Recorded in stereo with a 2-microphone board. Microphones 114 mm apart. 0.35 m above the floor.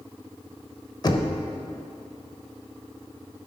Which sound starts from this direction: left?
Knocking, at 1.0 s.